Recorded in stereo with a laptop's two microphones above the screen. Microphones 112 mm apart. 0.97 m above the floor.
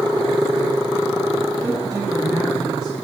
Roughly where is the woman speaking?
Right.